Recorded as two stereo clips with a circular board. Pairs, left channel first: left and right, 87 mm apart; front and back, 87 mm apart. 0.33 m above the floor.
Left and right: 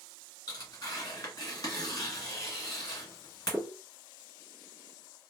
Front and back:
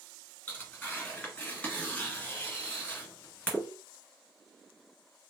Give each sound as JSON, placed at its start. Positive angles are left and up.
{"t": 0.5, "sound": "tearing paper", "azimuth_deg": 65, "distance_m": 1.8}